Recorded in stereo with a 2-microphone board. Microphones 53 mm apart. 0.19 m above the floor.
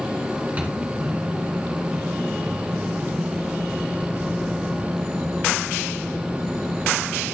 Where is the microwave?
30° right (ahead or behind), 1.8 m.